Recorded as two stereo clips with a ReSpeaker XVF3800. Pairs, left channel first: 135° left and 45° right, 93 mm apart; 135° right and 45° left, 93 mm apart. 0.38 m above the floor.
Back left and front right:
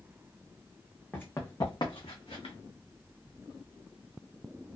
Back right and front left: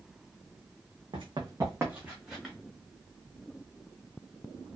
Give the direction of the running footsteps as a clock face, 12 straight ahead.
10 o'clock.